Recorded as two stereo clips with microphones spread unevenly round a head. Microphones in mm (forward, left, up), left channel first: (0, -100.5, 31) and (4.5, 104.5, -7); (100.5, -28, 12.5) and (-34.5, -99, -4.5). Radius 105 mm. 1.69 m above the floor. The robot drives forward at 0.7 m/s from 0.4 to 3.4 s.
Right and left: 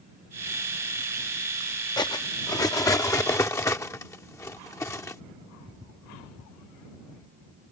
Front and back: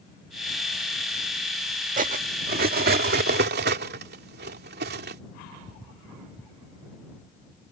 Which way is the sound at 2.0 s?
145° right.